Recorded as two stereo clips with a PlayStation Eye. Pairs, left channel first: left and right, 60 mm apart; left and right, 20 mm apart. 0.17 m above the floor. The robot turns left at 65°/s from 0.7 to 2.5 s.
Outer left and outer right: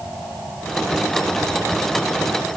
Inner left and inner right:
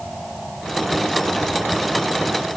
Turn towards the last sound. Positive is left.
No sound to turn to.